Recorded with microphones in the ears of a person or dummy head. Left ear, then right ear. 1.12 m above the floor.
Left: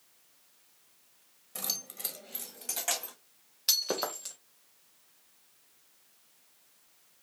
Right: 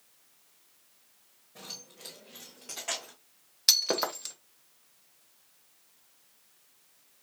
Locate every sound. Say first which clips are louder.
1.6 s keys jangling: left 7 dB; 70° left (ahead or behind), 1.0 m; by 3.1 s 25° left (ahead or behind), 2 m
3.7 s breaking glass: right 4 dB; 20° right (ahead or behind), 0.7 m